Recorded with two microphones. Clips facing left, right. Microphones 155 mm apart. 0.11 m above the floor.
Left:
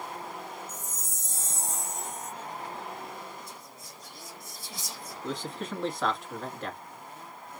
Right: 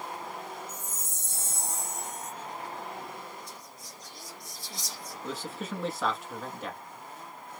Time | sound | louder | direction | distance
0.7 | a chime | even | 60° right (ahead or behind) | 1.4 m
3.5 | whispering | even | 5° left (ahead or behind) | 1.6 m
5.2 | a man speaking | left 2 dB | 5° right (ahead or behind) | 1.2 m